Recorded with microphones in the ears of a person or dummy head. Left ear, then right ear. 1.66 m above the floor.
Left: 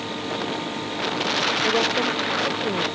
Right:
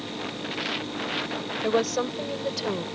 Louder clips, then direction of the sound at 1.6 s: Left 4 dB; 70° right (ahead or behind).